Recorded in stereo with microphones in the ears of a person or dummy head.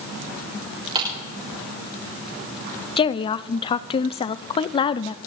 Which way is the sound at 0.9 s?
30° right (ahead or behind).